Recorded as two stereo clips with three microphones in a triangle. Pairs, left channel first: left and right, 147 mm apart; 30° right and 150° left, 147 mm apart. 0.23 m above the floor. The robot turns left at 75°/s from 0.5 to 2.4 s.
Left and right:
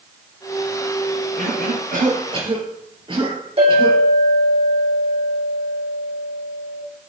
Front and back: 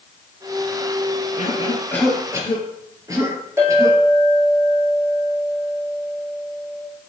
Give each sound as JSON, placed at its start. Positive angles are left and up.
{"t": 1.4, "sound": "a cough", "azimuth_deg": -65, "distance_m": 4.0}
{"t": 3.6, "sound": "a clink", "azimuth_deg": -140, "distance_m": 6.0}